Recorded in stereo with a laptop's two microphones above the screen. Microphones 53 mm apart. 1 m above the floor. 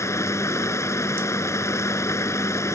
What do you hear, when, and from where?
0.0 s running water: 65° left (ahead or behind)